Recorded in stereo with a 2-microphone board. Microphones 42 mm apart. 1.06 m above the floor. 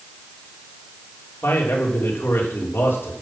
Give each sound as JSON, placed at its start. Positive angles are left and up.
{"t": 1.4, "sound": "a man speaking", "side_deg": 60, "distance_m": 3.5}